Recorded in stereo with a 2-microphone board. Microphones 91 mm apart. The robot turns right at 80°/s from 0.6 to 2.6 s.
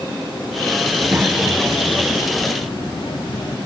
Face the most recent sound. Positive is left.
turn(degrees=85)